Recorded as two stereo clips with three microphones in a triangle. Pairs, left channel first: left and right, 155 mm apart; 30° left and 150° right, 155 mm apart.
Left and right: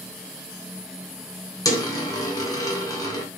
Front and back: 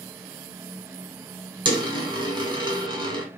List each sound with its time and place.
1.6 s a dropped coin: 155° left, 1.2 m